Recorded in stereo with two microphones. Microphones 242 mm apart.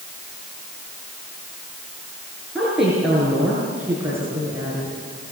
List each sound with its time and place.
2.5 s a woman speaking: centre (ahead or behind), 7 m; by 5.3 s 20° right (ahead or behind), 5.5 m